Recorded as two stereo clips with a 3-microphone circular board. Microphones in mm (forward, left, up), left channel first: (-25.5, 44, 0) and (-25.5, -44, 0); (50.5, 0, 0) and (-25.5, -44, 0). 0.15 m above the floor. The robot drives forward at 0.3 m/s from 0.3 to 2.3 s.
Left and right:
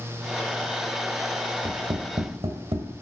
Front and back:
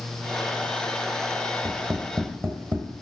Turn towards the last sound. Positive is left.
turn(degrees=-85)